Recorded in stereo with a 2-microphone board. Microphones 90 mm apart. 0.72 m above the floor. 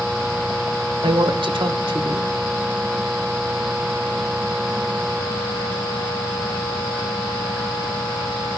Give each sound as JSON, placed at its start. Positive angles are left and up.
{"t": 1.0, "sound": "a woman speaking", "side_deg": -70, "distance_m": 2.5}